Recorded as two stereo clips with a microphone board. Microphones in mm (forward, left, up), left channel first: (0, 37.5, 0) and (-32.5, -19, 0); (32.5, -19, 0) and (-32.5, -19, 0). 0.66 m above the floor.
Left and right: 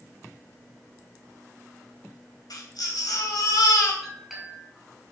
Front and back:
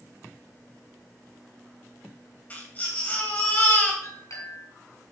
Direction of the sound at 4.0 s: 35° right.